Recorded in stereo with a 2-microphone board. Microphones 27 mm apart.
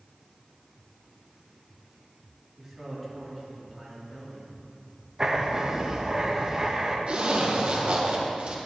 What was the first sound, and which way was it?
A man speaking, 5° right (ahead or behind).